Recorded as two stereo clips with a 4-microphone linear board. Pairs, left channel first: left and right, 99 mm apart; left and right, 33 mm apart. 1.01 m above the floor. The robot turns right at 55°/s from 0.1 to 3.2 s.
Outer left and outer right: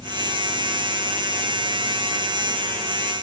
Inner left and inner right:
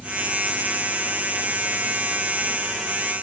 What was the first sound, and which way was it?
Only background noise.